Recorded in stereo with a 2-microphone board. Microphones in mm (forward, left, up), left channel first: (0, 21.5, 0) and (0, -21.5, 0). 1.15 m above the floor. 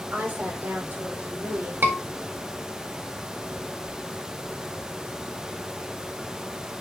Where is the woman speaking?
60° right (ahead or behind), 5.5 m; by 1.7 s 75° right (ahead or behind), 6 m.